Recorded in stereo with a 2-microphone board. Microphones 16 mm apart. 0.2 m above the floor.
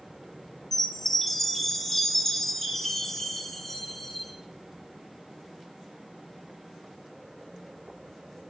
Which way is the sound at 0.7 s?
20° left (ahead or behind).